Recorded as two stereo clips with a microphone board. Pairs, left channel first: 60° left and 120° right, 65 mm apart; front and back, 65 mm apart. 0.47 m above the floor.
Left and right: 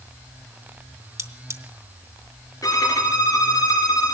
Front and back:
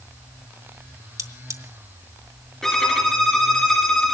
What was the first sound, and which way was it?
Cutlery clinking, 155° right.